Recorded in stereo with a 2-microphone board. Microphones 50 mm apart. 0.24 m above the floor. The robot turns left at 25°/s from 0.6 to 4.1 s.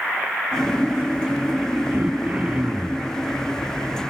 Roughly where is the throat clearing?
Behind right.